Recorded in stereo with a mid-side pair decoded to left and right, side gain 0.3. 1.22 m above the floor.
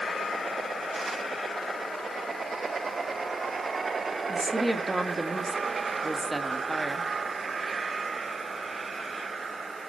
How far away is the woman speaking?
About 1.7 m.